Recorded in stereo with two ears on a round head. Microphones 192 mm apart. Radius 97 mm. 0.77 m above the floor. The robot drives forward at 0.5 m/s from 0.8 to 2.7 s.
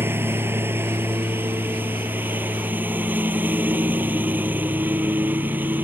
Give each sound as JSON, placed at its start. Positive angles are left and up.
{"t": 0.0, "sound": "a lawn mower", "side_deg": -10}